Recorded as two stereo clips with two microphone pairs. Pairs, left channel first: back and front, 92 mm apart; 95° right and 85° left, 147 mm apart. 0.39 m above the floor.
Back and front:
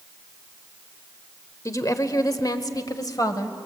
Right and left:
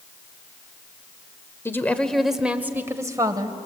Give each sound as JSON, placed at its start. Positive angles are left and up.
{"t": 1.6, "sound": "a woman speaking", "azimuth_deg": -160, "distance_m": 1.3}